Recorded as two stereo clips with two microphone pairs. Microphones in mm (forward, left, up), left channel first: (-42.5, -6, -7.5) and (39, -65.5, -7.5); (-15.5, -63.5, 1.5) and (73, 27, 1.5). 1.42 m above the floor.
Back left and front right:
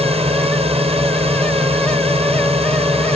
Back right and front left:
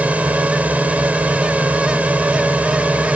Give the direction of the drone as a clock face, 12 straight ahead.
1 o'clock.